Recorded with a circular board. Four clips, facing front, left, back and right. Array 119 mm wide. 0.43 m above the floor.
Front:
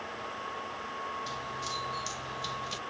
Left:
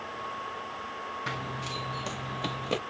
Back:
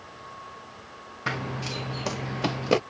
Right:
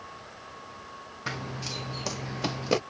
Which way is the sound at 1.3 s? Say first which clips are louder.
Right 4 dB, back 5 dB; 175° right.